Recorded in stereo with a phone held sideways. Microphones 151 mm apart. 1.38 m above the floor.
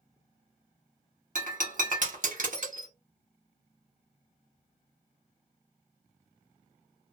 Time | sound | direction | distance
1.4 | breaking glass | 60° right (ahead or behind) | 1.1 m